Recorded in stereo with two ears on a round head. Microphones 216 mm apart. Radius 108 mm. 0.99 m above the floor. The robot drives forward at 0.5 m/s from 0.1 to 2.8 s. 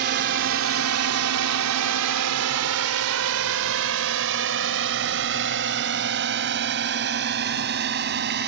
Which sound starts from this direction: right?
A drone, at 0.0 s.